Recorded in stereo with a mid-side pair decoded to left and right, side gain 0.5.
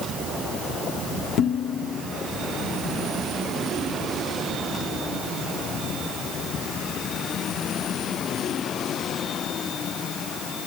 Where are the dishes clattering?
65° left, 3 m.